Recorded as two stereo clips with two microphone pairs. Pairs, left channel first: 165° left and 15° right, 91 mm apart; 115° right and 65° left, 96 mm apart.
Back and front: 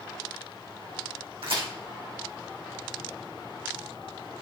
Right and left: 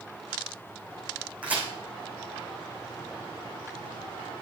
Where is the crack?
10° right, 7 m.